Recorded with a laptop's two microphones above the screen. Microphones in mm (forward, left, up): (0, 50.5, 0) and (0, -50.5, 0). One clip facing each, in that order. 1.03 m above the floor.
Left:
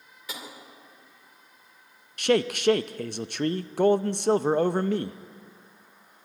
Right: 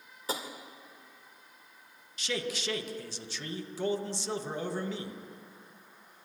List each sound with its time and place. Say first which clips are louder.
0.3 s tapping: right 5 dB; 35° right (ahead or behind), 2.5 m
2.2 s a man speaking: left 12 dB; 60° left (ahead or behind), 0.7 m